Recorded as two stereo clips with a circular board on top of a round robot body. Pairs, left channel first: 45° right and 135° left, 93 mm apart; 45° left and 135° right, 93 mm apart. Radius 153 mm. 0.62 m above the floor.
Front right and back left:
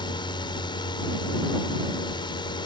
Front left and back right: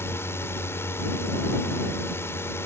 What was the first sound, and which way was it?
A drone, 15° right.